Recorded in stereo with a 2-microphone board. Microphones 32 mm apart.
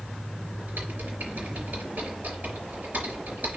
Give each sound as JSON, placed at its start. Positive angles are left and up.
{"t": 0.7, "sound": "typing on a keyboard", "side_deg": -60, "distance_m": 4.0}